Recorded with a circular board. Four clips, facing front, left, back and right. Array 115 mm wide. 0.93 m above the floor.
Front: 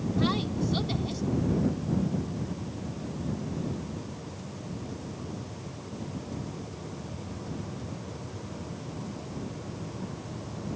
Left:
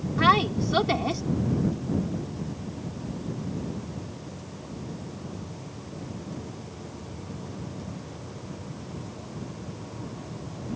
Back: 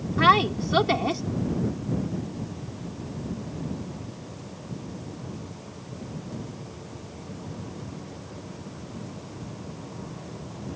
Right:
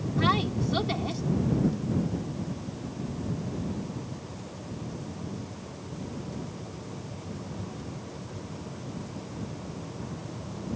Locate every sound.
0.2 s a woman speaking: 155° left